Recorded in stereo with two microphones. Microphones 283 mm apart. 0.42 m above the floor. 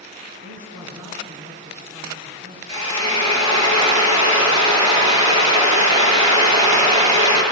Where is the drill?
70° right (ahead or behind), 5.5 m.